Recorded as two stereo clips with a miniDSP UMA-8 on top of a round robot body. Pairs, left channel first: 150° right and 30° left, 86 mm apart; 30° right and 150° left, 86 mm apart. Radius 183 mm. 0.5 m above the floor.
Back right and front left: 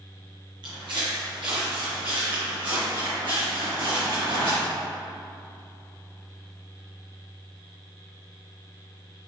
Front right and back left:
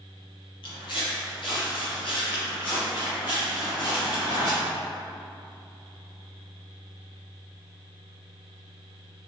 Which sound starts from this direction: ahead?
Footsteps, at 0.6 s.